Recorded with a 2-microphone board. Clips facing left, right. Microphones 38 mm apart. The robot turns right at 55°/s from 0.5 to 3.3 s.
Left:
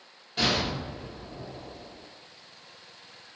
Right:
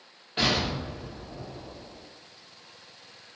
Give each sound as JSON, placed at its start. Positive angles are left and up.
{"t": 0.4, "sound": "an explosion", "azimuth_deg": -40, "distance_m": 0.9}